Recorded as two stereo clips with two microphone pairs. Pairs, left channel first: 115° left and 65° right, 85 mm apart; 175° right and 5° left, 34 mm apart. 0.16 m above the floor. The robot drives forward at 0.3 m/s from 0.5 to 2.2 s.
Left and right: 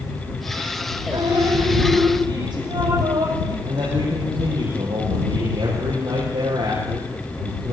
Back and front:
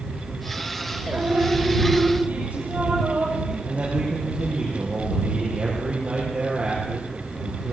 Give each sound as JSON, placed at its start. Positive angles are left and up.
{"t": 1.1, "sound": "dripping", "azimuth_deg": -35, "distance_m": 7.0}
{"t": 3.6, "sound": "a man speaking", "azimuth_deg": -50, "distance_m": 6.0}